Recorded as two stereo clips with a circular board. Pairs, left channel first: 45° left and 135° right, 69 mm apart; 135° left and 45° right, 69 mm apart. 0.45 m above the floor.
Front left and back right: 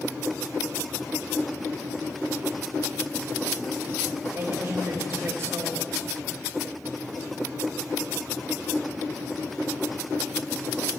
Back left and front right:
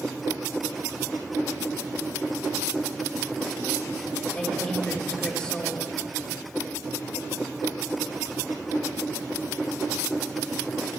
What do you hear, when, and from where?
4.3 s a woman speaking: 150° right, 2.5 m